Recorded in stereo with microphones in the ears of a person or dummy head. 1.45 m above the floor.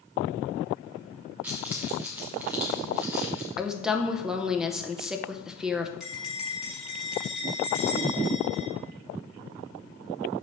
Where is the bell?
5° right (ahead or behind), 2 m.